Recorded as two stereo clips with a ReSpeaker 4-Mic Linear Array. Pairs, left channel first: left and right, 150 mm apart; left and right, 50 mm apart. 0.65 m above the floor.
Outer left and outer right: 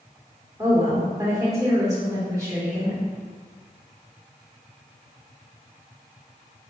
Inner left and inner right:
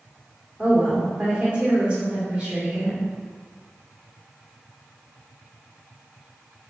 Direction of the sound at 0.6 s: 20° right (ahead or behind).